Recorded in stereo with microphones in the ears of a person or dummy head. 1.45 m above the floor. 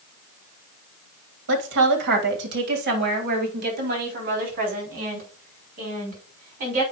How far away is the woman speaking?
About 2.5 m.